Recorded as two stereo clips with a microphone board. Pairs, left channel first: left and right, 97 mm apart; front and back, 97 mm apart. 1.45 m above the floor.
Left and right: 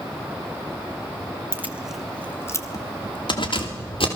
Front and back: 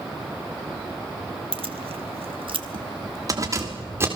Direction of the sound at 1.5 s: 155° right.